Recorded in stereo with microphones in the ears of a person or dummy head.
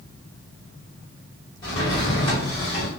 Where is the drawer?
25° left (ahead or behind), 1.3 m.